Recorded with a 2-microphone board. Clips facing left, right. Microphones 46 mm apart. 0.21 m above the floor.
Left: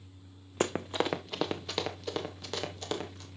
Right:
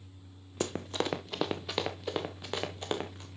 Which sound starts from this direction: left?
Running footsteps, at 0.6 s.